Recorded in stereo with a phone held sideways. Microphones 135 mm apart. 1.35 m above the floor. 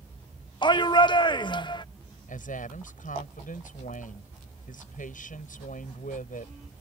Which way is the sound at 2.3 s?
85° left.